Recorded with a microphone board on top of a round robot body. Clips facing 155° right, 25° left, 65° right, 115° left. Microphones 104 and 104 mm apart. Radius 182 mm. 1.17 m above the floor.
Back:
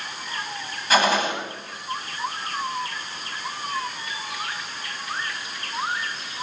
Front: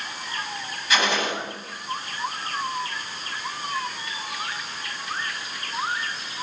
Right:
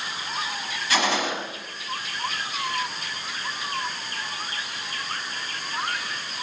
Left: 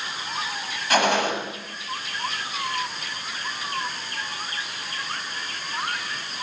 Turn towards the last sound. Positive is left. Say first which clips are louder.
# back 4 dB, left 4 dB
turn(degrees=150)